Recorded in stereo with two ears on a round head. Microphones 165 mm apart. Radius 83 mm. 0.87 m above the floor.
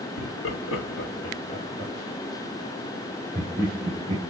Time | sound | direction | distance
0.2 | laughter | 75° left (ahead or behind) | 2 m